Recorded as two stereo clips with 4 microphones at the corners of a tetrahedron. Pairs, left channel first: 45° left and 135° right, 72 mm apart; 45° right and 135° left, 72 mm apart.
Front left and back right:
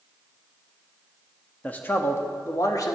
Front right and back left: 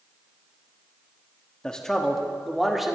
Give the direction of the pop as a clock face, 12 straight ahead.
No pop in this recording.